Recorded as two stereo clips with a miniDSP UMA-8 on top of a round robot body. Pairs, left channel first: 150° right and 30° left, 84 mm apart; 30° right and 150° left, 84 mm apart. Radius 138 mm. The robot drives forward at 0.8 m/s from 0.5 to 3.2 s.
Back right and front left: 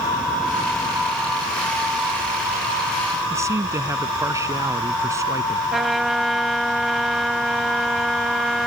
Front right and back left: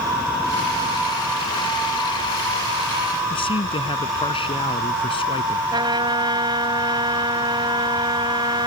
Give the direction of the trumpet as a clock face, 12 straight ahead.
8 o'clock.